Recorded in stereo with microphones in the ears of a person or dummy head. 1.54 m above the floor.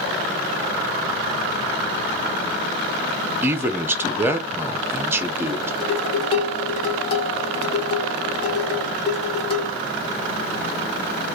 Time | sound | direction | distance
3.4 | a man speaking | 15° right (ahead or behind) | 0.6 m
5.8 | dishes clattering | 35° left (ahead or behind) | 0.9 m